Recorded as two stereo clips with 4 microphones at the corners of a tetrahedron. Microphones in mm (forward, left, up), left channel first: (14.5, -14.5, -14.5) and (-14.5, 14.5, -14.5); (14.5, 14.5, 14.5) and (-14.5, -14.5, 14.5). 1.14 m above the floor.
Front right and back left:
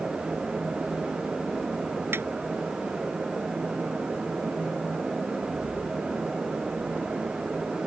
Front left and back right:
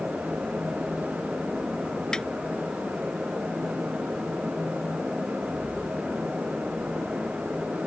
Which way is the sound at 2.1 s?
120° left.